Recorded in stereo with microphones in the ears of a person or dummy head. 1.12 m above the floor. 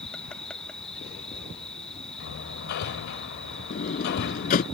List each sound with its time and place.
0.0 s an insect: 5° left (ahead or behind)
2.2 s hammering: 60° left (ahead or behind)
3.7 s a sliding door: 45° left (ahead or behind)